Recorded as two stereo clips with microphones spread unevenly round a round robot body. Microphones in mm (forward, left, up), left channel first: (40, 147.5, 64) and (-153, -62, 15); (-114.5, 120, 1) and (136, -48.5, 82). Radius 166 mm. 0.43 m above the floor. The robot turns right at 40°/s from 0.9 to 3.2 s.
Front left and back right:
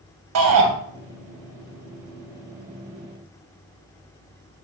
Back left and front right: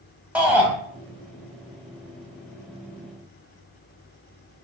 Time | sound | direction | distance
0.3 | a shout | 125° right | 3 m